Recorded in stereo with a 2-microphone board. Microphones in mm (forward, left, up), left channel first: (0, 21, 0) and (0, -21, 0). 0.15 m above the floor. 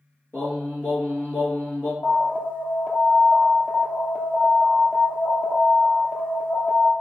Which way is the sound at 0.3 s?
60° left (ahead or behind).